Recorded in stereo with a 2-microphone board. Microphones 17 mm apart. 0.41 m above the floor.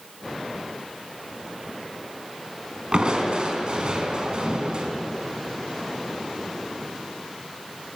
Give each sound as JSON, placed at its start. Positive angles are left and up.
{"t": 2.9, "sound": "crushing", "side_deg": -50, "distance_m": 4.5}